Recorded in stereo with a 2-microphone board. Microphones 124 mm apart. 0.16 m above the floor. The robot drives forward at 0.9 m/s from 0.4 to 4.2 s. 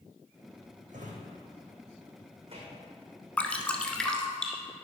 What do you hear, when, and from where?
0.9 s a drawer: 85° right, 1.9 m; by 2.9 s 45° right (ahead or behind), 2.5 m
3.4 s dripping: 10° left (ahead or behind), 0.9 m; by 4.6 s 5° left (ahead or behind), 1.4 m